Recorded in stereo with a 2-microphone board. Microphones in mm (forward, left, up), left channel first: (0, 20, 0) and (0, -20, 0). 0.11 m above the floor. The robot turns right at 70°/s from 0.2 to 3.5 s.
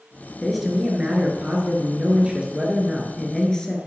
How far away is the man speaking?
About 2 m.